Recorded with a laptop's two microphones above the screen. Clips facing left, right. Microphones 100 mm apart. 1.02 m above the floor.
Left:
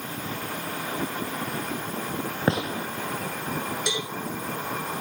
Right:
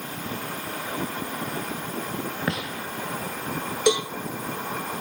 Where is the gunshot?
30° left (ahead or behind), 0.5 m.